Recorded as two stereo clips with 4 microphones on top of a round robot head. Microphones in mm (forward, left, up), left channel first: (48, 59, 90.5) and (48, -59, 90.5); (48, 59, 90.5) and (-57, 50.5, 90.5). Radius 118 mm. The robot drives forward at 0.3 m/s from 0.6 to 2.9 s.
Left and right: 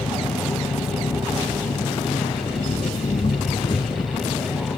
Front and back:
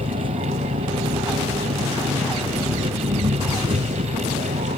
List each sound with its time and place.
0.0 s an engine running: 145° left; by 4.8 s 150° left